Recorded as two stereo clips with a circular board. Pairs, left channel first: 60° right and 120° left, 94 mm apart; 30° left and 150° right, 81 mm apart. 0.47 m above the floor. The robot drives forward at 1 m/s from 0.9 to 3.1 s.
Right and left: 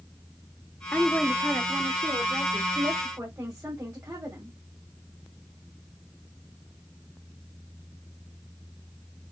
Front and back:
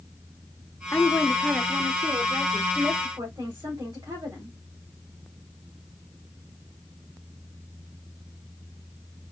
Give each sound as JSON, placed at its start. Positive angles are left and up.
{"t": 0.9, "sound": "a woman speaking", "azimuth_deg": -5, "distance_m": 0.9}